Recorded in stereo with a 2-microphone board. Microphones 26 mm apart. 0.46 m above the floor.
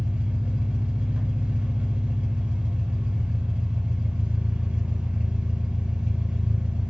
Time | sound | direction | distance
0.0 | an engine running | 70° right (ahead or behind) | 0.7 m